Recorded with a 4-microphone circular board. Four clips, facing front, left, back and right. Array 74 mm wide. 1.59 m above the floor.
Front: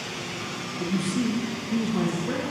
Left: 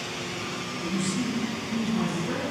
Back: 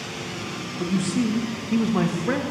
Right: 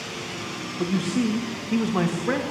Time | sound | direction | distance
0.8 | a man speaking | 100° right | 2.0 m